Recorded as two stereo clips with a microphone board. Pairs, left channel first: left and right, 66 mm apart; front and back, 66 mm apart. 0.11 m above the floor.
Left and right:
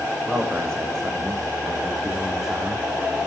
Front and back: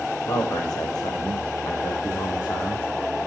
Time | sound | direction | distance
0.2 | a man speaking | 15° left | 6 m